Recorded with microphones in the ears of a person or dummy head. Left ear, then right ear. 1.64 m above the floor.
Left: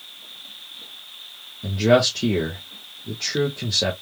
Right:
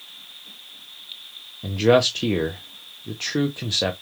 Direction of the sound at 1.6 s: 25° right (ahead or behind).